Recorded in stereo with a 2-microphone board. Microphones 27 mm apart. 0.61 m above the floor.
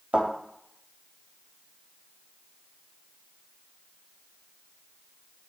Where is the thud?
60° right (ahead or behind), 1.2 m.